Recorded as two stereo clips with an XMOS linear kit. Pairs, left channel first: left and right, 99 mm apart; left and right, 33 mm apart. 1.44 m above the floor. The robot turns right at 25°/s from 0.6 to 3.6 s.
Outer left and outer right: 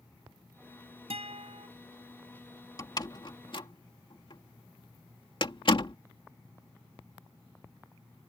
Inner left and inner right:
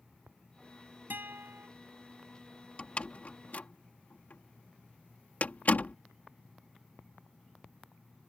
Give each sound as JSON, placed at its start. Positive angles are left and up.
{"t": 1.1, "sound": "a guitar", "side_deg": -90}
{"t": 2.8, "sound": "a door slam", "side_deg": 40}